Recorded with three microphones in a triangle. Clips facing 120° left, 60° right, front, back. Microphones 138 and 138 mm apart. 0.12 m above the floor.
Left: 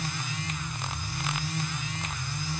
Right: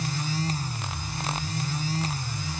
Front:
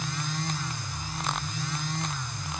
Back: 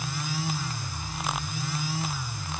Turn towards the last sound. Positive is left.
No sound to turn to.